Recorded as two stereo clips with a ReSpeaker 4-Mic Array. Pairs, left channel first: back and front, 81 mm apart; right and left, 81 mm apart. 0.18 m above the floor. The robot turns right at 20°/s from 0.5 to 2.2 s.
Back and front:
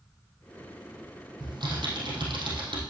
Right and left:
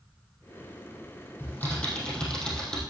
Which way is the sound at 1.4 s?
25° right.